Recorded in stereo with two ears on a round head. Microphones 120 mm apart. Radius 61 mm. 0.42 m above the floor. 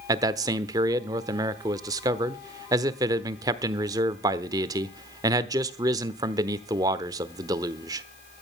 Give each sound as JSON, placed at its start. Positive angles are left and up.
{"t": 0.1, "sound": "a man speaking", "side_deg": -25, "distance_m": 0.9}